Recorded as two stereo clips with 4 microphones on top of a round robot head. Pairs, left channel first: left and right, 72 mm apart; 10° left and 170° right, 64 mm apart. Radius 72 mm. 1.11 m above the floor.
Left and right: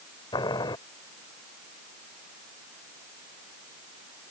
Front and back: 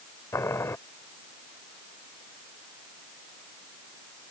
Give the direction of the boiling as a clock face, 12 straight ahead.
10 o'clock.